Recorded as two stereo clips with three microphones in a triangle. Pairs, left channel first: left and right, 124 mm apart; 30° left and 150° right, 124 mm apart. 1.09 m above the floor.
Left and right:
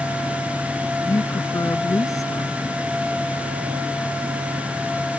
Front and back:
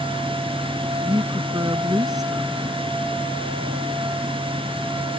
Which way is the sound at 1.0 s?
155° left.